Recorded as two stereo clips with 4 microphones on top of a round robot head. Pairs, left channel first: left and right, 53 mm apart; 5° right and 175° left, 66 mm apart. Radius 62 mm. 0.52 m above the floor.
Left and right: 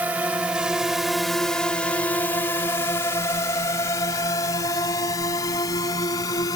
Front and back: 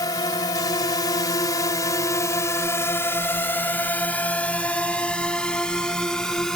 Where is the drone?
30° right; by 6.6 s 75° left.